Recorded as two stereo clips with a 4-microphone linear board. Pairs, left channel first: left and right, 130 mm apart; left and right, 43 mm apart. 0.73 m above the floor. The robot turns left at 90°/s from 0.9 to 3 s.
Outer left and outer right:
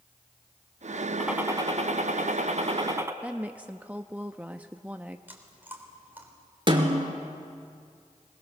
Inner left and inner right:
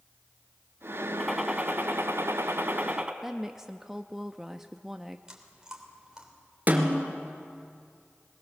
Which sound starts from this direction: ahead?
A gunshot, at 1.2 s.